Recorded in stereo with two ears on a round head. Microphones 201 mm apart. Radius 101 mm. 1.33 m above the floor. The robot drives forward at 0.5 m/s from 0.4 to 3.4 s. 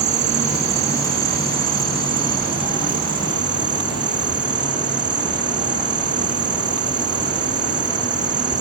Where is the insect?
30° right (ahead or behind); by 8.6 s 20° right (ahead or behind).